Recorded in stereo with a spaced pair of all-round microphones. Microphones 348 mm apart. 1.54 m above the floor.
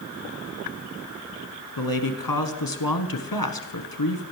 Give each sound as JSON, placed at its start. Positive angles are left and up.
{"t": 1.8, "sound": "a man speaking", "side_deg": 80, "distance_m": 1.1}